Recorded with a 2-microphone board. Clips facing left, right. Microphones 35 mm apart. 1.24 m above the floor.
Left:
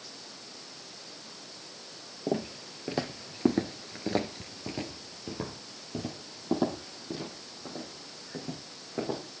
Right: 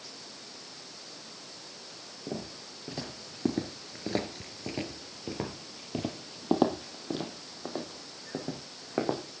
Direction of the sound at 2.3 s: 50° left (ahead or behind).